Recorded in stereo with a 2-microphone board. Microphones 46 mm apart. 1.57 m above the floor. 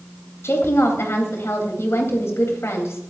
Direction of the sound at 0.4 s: 70° left (ahead or behind).